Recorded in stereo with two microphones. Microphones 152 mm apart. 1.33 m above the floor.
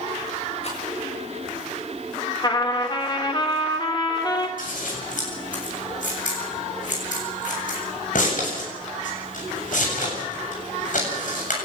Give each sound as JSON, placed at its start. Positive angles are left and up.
{"t": 0.6, "sound": "a rattle", "side_deg": 50, "distance_m": 7.5}
{"t": 2.4, "sound": "a trumpet", "side_deg": 30, "distance_m": 3.0}
{"t": 4.6, "sound": "scissors", "side_deg": 65, "distance_m": 7.5}